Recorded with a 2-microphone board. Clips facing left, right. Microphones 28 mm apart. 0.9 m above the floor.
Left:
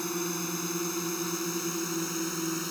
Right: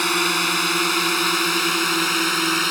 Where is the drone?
75° right (ahead or behind); by 2.7 s 70° right (ahead or behind).